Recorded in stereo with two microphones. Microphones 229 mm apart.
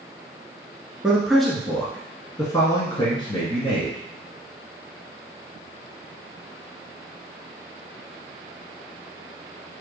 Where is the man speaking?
5° right (ahead or behind), 1.4 m; by 4.0 s 25° left (ahead or behind), 1.7 m.